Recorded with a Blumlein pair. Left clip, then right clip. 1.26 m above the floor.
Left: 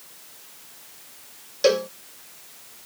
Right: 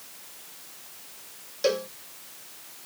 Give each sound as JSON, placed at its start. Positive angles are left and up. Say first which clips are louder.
{"t": 1.6, "sound": "a cowbell", "louder": "left 6 dB", "azimuth_deg": 20}